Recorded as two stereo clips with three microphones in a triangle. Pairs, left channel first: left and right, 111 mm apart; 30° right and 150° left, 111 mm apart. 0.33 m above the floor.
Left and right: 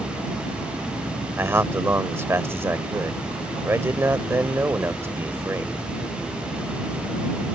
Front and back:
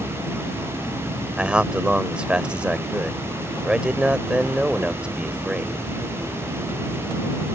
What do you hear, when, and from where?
1.4 s a man speaking: 135° right